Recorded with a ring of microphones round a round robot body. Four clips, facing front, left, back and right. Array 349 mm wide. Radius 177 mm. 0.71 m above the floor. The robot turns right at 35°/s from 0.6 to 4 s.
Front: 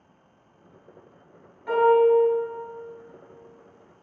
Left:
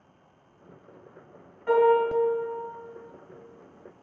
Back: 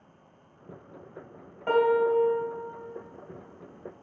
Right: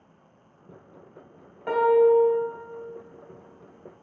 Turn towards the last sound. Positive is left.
turn(degrees=-50)